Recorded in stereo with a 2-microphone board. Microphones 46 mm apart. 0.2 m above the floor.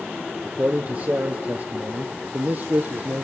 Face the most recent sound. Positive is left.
turn(degrees=-65)  # may be behind; listen again after turning